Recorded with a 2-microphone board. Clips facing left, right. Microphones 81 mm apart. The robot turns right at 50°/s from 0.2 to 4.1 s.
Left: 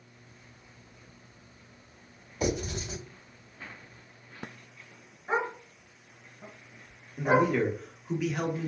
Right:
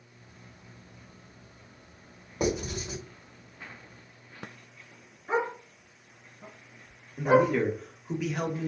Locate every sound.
2.4 s writing: 50° right (ahead or behind), 2 m; by 3.0 s 60° right (ahead or behind), 2 m
5.3 s a dog barking: 25° left (ahead or behind), 1.8 m
7.2 s a man speaking: centre (ahead or behind), 0.7 m